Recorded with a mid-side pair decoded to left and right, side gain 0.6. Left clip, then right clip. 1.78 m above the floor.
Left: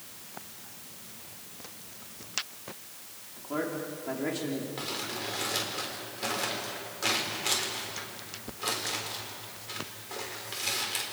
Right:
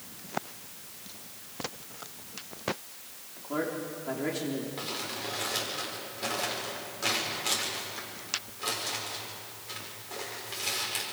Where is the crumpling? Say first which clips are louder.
Even; 10° left, 7 m.